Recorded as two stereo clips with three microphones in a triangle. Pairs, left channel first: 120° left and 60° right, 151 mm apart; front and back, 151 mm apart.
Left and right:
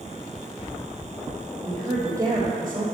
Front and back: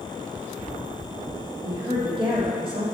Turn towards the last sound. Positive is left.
turn(degrees=-125)